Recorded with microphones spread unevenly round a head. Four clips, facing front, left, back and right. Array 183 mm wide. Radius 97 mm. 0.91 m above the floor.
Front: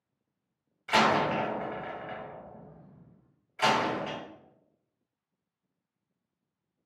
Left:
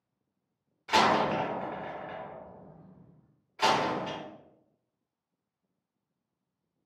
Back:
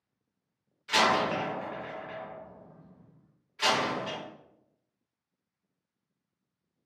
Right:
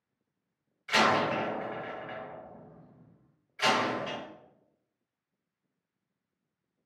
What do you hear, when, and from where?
0.9 s a door slam: 50° left, 0.8 m